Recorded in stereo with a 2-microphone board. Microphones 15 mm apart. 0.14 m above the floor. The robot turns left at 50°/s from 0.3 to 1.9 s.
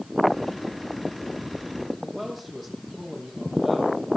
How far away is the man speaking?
About 6.5 m.